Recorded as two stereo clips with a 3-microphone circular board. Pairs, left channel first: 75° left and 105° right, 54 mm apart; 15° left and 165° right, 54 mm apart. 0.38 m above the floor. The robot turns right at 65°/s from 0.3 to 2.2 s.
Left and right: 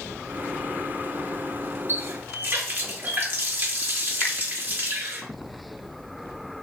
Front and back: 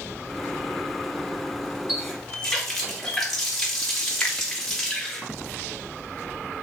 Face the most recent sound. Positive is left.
turn(degrees=50)